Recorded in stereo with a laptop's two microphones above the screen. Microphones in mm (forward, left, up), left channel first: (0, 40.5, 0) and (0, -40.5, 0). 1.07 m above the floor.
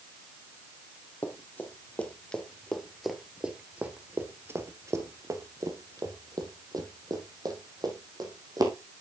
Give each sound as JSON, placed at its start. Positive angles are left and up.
{"t": 1.2, "sound": "running footsteps", "side_deg": 25, "distance_m": 1.6}